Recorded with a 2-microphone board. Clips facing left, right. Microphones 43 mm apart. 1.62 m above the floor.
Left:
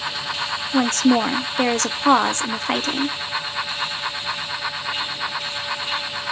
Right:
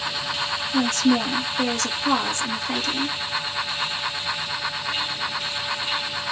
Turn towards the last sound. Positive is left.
turn(degrees=50)  # may be behind; listen again after turning